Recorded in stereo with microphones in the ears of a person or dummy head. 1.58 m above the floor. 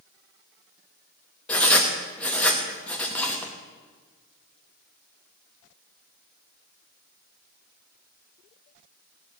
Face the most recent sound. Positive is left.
turn(degrees=5)  # may be behind; listen again after turning